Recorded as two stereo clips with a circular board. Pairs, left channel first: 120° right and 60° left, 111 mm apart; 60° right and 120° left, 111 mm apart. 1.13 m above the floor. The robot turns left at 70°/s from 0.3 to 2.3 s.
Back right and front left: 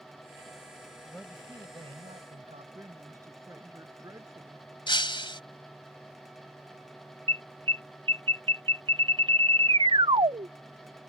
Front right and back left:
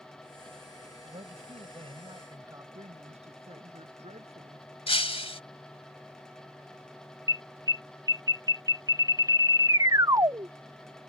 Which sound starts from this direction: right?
Breaking glass, at 4.9 s.